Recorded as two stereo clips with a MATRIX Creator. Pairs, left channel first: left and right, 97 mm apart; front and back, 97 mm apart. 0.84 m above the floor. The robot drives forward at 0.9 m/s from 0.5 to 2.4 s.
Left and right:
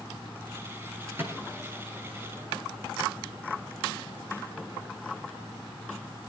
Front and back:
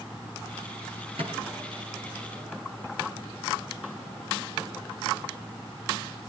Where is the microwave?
160° right, 7 m.